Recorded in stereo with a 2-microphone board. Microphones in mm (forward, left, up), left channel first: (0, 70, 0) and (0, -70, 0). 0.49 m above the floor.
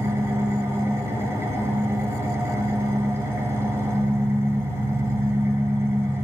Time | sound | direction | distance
0.0 | an engine running | 20° right (ahead or behind) | 2.5 m